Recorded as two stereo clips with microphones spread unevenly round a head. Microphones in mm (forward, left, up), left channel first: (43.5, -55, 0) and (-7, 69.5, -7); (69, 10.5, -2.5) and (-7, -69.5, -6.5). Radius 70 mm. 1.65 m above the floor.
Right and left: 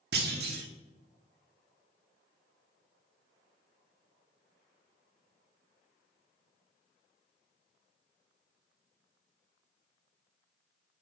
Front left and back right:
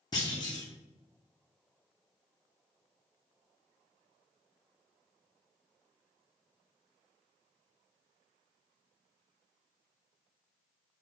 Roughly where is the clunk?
Left.